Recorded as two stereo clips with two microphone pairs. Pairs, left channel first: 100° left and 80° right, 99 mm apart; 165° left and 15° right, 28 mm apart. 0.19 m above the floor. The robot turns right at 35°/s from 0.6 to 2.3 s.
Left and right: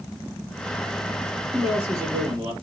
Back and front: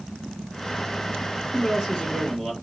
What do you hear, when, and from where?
1.5 s a man speaking: 150° right, 4.5 m; by 2.5 s 120° right, 4.5 m